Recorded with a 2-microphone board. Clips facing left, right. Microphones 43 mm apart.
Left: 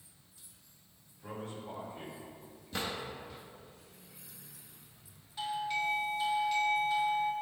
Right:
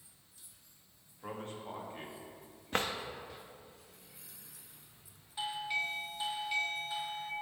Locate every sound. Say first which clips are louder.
1.2 s a man speaking: even; 50° right (ahead or behind), 1.9 m
2.7 s a drawer: right 3 dB; 50° right (ahead or behind), 0.7 m
5.4 s a doorbell: left 2 dB; 10° right (ahead or behind), 0.6 m